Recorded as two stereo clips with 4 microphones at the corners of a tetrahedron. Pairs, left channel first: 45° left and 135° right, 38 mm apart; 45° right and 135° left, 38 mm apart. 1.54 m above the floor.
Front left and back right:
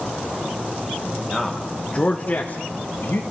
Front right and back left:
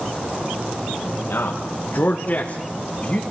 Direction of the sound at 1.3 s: 50° right.